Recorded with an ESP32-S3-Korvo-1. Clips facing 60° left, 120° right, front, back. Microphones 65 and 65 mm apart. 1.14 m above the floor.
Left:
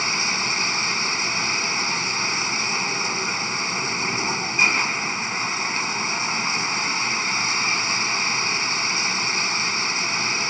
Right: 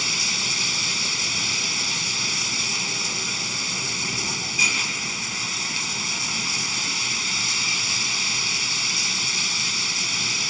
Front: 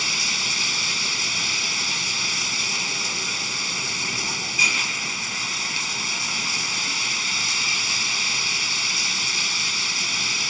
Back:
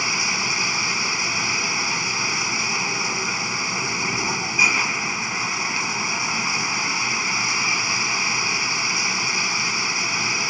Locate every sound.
0.0 s running water: 115° left